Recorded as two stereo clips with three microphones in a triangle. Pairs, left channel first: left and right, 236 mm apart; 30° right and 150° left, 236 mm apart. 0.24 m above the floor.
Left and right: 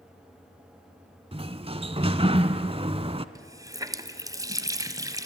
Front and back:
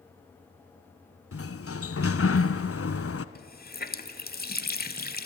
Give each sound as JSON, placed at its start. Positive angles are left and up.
{"t": 1.3, "sound": "a sliding door", "azimuth_deg": -25, "distance_m": 0.9}
{"t": 3.4, "sound": "a running tap", "azimuth_deg": -20, "distance_m": 1.1}